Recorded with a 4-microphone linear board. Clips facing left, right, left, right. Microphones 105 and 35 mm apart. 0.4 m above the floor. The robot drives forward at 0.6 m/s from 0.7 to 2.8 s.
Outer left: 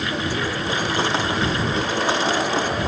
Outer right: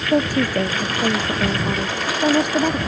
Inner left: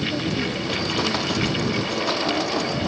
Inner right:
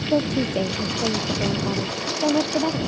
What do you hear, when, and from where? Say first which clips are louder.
0.1 s a woman speaking: outer right 12 dB, inner right 4 dB; 50° right (ahead or behind); by 2.8 s 55° right (ahead or behind)